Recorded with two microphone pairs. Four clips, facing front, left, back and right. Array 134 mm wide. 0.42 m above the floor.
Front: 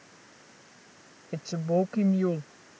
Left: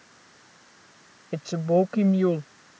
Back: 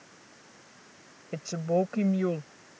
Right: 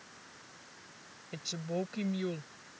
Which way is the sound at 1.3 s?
100° left.